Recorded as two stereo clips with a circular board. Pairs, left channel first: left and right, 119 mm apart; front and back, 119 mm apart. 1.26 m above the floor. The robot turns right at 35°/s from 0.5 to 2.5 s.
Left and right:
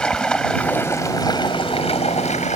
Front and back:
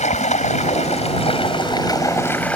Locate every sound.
0.0 s running water: 10° left; by 2.6 s 80° left